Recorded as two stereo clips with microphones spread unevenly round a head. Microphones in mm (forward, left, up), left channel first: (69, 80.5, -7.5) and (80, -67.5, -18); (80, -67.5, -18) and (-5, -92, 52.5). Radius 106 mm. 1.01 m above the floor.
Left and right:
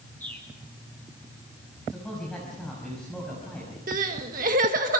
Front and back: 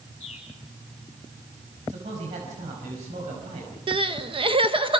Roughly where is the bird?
Ahead.